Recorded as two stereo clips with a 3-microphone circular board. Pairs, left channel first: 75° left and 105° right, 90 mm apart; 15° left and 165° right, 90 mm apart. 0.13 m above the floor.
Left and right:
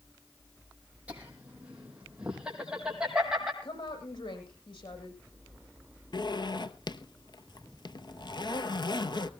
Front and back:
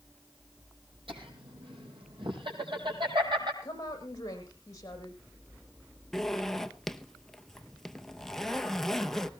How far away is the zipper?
About 0.8 m.